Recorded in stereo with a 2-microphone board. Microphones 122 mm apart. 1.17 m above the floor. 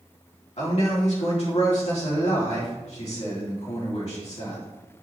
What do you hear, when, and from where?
0.6 s a man speaking: 65° left (ahead or behind), 3.5 m